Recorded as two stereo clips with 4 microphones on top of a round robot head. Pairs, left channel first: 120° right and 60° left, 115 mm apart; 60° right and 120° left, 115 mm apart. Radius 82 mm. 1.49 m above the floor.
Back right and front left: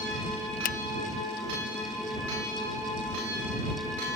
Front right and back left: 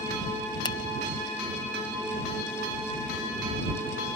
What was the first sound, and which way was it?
A finger snap, 115° right.